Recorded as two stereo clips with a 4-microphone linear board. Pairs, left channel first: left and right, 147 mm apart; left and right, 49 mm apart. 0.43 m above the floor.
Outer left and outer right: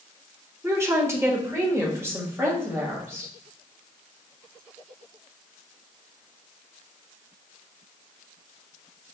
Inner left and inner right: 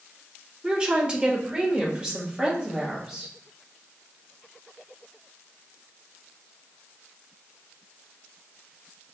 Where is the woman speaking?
20° right (ahead or behind), 0.9 m; by 3.3 s 15° right (ahead or behind), 2 m.